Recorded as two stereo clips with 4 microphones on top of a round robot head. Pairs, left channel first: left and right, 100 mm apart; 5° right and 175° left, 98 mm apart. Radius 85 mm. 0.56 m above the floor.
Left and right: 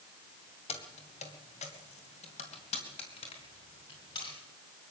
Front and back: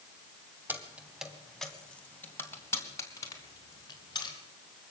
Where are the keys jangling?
105° left, 3 m; by 4.4 s 40° left, 5 m.